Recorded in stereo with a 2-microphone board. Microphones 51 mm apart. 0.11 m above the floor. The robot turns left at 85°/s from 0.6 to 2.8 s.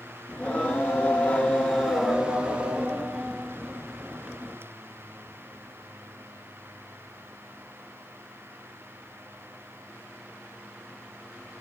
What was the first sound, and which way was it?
Singing, 25° left (ahead or behind).